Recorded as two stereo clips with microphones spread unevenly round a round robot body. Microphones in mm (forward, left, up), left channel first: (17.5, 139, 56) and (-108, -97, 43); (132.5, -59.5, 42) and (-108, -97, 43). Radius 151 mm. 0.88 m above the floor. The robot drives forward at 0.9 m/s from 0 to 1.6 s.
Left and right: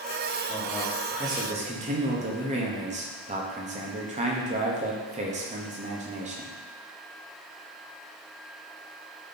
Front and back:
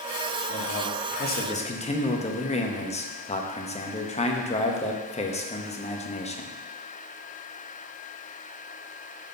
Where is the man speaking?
25° right, 1.8 m; by 6.5 s 55° right, 1.0 m.